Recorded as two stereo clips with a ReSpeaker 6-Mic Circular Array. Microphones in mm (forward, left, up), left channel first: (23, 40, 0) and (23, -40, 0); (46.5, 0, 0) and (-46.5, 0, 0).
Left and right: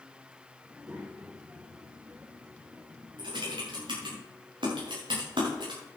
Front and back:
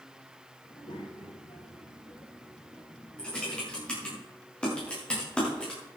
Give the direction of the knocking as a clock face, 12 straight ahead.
No knocking in this recording.